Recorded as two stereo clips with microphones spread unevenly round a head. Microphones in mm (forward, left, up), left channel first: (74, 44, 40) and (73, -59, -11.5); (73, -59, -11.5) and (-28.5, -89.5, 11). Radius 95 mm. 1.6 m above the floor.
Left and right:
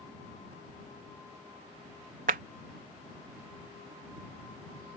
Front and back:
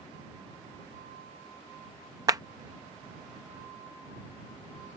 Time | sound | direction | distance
2.3 | a clap | 130° right | ?